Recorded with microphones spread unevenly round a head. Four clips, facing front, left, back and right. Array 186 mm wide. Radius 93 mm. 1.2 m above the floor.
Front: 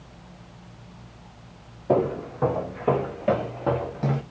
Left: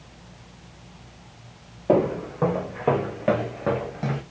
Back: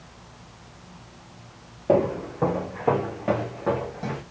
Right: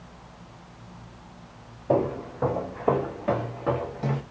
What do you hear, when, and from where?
1.9 s footsteps: 120° left, 1.9 m; by 4.2 s 20° left, 1.4 m